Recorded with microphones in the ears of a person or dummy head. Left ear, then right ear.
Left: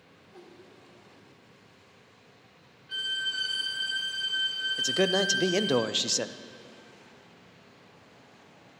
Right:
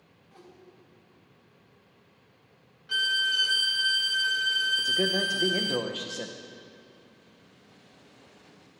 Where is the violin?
35° right (ahead or behind), 0.8 m.